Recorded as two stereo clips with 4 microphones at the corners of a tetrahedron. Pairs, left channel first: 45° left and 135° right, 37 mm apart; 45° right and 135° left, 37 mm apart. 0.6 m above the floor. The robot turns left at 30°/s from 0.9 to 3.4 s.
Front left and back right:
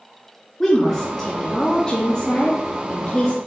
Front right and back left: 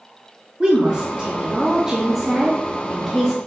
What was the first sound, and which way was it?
A woman speaking, 110° left.